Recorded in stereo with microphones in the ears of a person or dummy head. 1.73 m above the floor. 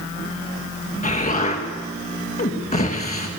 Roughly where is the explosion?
Left.